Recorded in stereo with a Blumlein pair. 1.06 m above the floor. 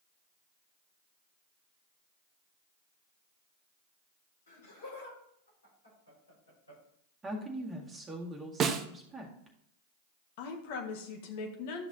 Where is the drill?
I don't hear a drill.